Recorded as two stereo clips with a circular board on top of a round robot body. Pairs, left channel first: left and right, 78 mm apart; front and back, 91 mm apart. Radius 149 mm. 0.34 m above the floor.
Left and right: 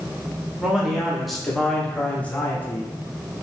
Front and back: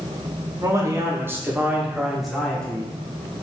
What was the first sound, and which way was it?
A man speaking, 165° right.